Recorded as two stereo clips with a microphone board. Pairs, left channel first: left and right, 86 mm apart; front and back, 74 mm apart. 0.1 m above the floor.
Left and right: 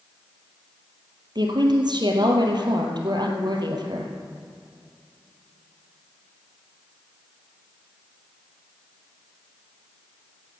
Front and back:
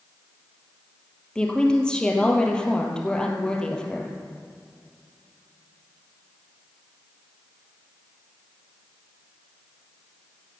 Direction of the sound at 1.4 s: 75° right.